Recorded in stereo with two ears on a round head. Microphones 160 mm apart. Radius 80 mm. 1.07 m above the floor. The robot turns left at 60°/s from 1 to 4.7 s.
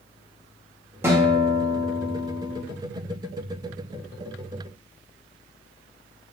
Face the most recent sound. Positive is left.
turn(degrees=125)